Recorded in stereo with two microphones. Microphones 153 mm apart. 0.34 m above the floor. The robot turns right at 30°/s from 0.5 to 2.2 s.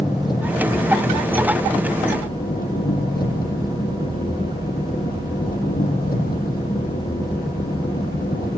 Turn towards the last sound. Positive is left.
turn(degrees=75)